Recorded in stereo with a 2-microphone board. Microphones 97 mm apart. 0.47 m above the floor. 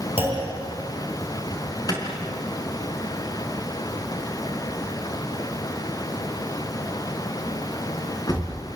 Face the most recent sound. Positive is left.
turn(degrees=40)  # may be behind; listen again after turning